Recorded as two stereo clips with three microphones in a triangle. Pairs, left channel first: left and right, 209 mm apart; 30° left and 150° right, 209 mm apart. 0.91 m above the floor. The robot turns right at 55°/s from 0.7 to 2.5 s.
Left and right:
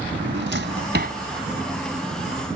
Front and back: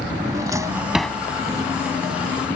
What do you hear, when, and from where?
0.1 s a drawer: 75° right; by 1.2 s 50° right